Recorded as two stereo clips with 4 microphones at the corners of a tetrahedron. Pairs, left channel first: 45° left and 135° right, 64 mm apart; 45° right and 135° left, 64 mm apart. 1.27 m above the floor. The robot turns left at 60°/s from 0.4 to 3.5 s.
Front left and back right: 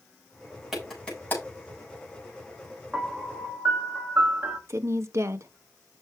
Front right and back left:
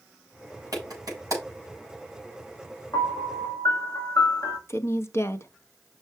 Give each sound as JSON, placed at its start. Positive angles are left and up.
{"t": 0.7, "sound": "a clap", "azimuth_deg": 145, "distance_m": 7.0}
{"t": 2.9, "sound": "a piano", "azimuth_deg": -45, "distance_m": 2.0}
{"t": 4.7, "sound": "a woman speaking", "azimuth_deg": -90, "distance_m": 1.1}